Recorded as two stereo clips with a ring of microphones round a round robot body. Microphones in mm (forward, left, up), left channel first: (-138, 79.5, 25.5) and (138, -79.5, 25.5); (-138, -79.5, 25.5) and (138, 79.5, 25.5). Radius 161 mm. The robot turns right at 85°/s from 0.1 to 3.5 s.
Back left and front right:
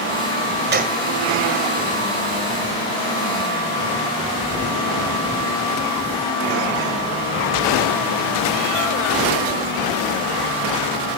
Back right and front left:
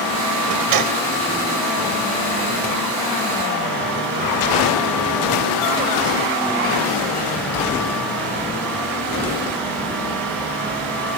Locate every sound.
0.7 s a gunshot: 25° left, 1.9 m; by 1.0 s 55° left, 1.9 m